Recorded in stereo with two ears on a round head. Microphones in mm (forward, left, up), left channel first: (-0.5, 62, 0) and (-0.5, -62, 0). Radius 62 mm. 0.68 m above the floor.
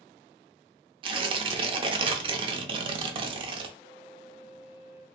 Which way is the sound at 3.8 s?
40° right (ahead or behind).